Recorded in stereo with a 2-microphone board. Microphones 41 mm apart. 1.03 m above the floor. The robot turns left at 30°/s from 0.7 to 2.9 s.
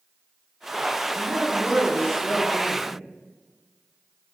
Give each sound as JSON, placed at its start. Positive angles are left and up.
{"t": 1.1, "sound": "a woman speaking", "azimuth_deg": -155, "distance_m": 2.0}